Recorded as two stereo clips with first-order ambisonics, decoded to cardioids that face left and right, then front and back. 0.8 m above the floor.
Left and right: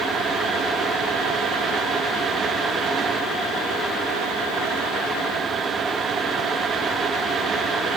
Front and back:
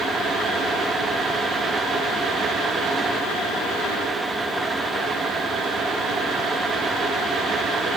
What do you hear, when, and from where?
Only background noise.